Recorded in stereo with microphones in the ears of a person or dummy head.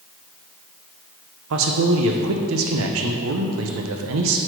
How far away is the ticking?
No ticking in this recording.